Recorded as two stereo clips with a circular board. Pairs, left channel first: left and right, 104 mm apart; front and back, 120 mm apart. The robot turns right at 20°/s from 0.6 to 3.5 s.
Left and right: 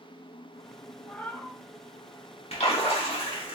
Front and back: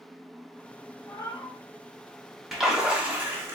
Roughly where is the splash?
Left.